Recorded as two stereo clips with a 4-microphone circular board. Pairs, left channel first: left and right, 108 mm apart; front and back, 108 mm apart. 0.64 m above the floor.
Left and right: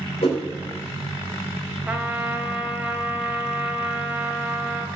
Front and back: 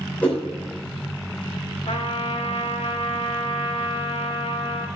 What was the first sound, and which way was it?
A whoosh, 75° left.